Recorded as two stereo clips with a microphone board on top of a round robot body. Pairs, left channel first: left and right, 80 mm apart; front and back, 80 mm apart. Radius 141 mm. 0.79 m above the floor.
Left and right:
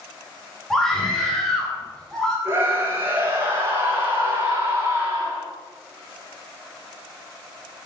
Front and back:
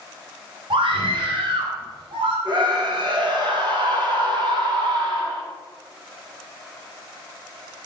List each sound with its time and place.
0.7 s a scream: 175° left, 4 m
2.5 s a scream: 150° right, 5.5 m